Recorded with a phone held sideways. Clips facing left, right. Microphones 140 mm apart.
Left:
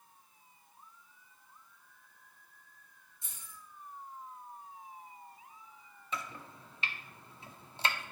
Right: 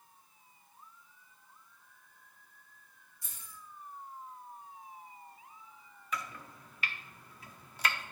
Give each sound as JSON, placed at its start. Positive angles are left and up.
{"t": 3.2, "sound": "keys jangling", "side_deg": 25, "distance_m": 3.5}
{"t": 6.1, "sound": "chopping", "side_deg": 25, "distance_m": 0.5}